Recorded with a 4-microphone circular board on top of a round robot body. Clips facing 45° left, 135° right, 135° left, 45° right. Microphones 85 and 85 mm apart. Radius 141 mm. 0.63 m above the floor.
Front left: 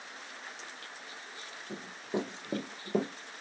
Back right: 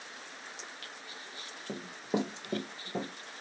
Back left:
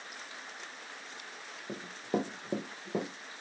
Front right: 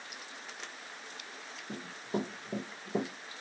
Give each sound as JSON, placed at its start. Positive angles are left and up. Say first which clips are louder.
{"t": 1.7, "sound": "running footsteps", "louder": "back right 2 dB, back left 3 dB", "azimuth_deg": -170, "distance_m": 1.1}